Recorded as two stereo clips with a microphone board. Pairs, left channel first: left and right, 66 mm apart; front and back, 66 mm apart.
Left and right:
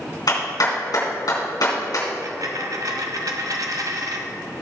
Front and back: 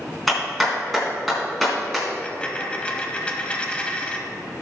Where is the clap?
90° left, 4 m.